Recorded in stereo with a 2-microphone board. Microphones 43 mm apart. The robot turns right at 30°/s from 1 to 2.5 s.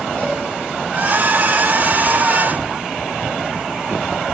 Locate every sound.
0.2 s a cowbell: 35° left (ahead or behind), 4 m